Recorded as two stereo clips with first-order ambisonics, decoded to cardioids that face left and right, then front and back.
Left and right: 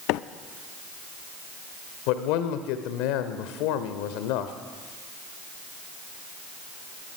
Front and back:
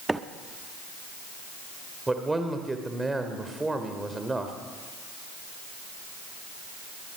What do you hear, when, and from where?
0.1 s a microwave: 100° left, 0.7 m
2.1 s a man speaking: 100° left, 2 m